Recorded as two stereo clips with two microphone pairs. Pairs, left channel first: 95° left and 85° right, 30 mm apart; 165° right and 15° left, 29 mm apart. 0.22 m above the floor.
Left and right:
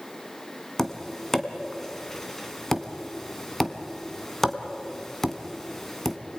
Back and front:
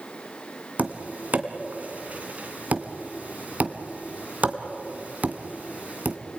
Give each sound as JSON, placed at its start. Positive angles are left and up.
{"t": 0.8, "sound": "tapping", "azimuth_deg": 20, "distance_m": 1.9}